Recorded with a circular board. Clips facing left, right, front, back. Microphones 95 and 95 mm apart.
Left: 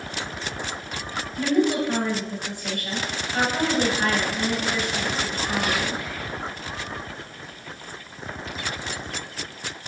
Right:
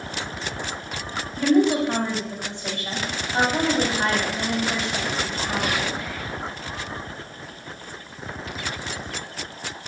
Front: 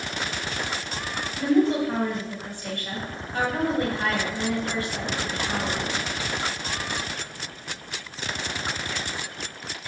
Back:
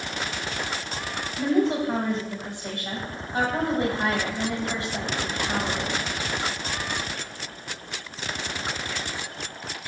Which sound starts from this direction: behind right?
A woman speaking, at 1.4 s.